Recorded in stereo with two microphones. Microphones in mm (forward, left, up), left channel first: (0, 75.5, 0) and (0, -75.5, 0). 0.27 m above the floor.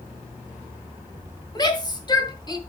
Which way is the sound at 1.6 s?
30° left (ahead or behind).